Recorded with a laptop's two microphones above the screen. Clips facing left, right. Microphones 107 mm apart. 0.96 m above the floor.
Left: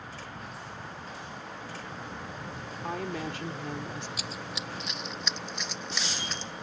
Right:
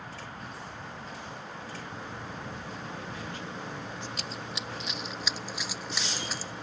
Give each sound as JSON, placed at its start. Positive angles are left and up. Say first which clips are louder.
{"t": 2.8, "sound": "a woman speaking", "louder": "left 10 dB", "side_deg": 80}
{"t": 4.2, "sound": "running footsteps", "louder": "even", "side_deg": 5}